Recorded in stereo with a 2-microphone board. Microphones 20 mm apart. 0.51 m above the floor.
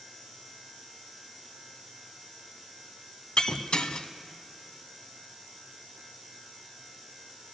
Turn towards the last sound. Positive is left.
turn(degrees=50)  # may be behind; listen again after turning